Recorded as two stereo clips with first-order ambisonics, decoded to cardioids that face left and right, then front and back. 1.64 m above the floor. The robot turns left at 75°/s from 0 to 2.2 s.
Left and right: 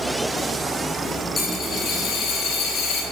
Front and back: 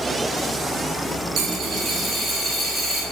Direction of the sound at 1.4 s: 160° left.